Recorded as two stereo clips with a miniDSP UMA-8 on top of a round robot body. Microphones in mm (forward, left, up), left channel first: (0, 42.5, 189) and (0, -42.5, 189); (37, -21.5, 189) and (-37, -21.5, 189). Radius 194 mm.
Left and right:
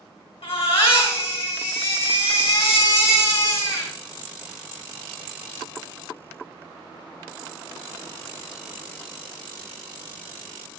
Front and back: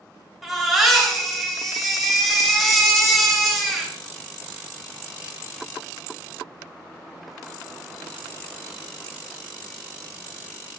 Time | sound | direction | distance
0.4 | a baby crying | 95° left | 2.5 m